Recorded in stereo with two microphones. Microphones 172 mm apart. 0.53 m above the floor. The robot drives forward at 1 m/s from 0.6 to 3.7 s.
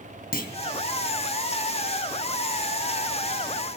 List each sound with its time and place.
0.3 s a clunk: 55° left (ahead or behind), 3.5 m